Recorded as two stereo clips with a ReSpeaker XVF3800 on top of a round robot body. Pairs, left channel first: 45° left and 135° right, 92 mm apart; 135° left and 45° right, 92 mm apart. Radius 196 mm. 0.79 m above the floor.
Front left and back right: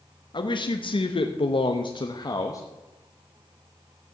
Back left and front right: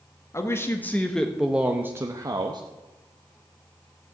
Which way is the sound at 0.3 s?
75° left.